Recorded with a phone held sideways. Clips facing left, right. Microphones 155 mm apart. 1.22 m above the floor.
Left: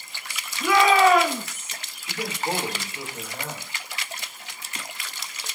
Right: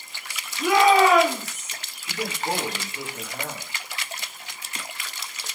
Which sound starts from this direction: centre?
A man speaking, at 2.1 s.